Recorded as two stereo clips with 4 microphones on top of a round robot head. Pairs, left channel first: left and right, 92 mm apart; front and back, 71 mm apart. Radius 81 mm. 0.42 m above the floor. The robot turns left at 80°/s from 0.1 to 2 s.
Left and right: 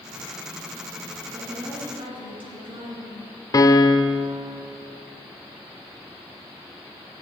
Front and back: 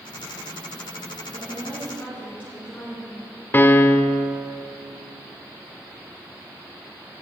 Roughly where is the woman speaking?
Ahead.